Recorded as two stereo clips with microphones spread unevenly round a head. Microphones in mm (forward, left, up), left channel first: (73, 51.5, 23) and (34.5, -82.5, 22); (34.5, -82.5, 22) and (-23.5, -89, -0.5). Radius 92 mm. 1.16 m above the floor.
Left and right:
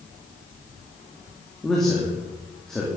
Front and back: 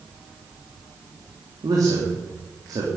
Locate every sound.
1.6 s a man speaking: 160° left, 2.5 m